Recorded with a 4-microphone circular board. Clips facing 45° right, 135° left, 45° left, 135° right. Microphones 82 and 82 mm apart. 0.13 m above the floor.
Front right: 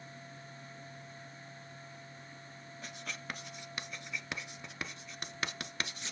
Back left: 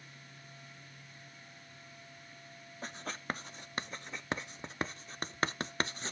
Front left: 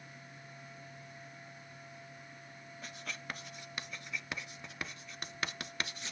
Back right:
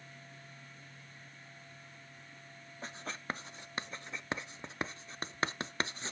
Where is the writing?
175° left, 0.5 m.